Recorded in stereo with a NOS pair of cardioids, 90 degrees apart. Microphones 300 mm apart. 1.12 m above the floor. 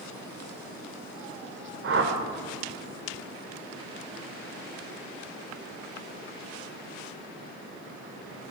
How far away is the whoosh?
About 2.5 m.